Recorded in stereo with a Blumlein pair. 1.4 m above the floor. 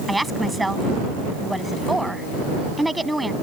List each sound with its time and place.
0.1 s a woman speaking: 5° right